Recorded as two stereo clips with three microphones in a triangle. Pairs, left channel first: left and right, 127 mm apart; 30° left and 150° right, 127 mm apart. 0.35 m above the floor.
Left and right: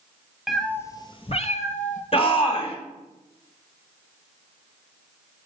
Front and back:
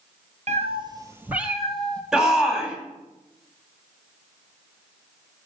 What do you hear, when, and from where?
0.5 s a cat meowing: straight behind, 0.8 m; by 2.0 s 110° left, 1.3 m
2.1 s a shout: 125° left, 2.5 m